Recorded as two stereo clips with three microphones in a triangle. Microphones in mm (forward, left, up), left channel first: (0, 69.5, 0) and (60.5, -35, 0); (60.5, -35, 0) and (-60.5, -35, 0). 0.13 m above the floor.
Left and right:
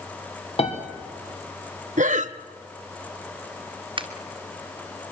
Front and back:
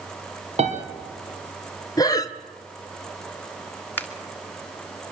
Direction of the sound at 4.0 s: 65° right.